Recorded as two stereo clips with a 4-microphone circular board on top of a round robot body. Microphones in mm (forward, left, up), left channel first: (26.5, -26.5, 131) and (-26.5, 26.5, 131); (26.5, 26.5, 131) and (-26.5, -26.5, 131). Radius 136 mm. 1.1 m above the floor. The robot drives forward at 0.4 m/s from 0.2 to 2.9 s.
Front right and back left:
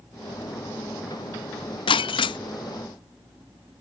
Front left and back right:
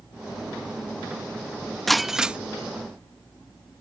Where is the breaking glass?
45° right; by 2.4 s 60° right.